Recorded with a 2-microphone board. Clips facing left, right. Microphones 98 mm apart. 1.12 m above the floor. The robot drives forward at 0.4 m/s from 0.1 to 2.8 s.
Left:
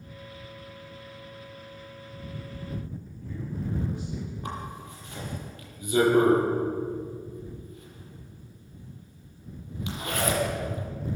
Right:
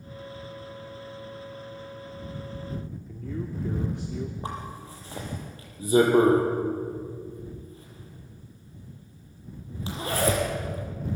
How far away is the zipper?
About 6.5 m.